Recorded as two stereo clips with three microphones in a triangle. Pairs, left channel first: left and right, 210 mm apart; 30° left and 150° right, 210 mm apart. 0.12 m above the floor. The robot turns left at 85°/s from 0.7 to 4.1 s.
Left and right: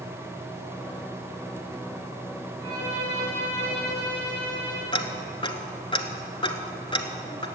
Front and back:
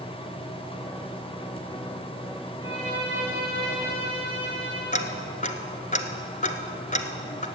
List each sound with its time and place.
2.6 s a violin: 105° left, 5 m; by 4.8 s 25° right, 5 m
4.9 s ticking: 45° left, 1.0 m